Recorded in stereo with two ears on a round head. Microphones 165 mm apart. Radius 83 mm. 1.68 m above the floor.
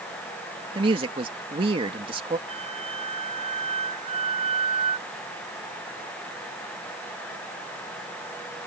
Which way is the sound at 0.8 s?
30° right (ahead or behind).